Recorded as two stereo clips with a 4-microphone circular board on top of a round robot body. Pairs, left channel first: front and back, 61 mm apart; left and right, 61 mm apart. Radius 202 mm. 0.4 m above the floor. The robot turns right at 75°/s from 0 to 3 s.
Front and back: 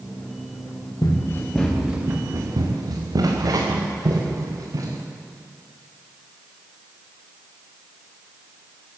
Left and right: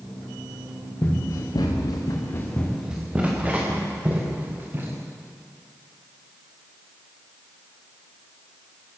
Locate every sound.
1.0 s running footsteps: 30° left, 6 m; by 5.0 s 150° right, 7 m